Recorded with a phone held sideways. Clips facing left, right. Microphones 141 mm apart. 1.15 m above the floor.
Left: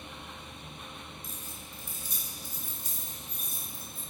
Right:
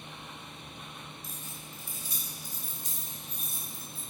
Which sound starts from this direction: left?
Keys jangling, at 1.2 s.